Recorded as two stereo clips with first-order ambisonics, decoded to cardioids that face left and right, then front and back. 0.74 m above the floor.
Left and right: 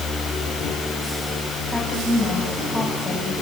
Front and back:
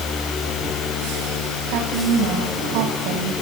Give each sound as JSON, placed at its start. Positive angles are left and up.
{"t": 1.6, "sound": "a woman speaking", "azimuth_deg": -175, "distance_m": 5.0}